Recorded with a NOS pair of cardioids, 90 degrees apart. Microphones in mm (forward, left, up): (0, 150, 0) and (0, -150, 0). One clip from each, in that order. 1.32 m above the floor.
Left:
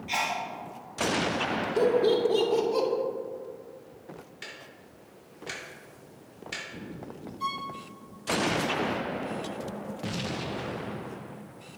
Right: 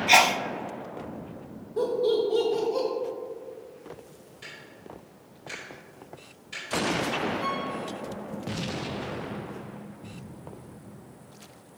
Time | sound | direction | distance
0.1 | a sneeze | 65° right | 0.6 m
1.8 | laughter | 35° left | 2.5 m
4.4 | ticking | 55° left | 2.5 m
7.4 | a violin | 35° left | 2.5 m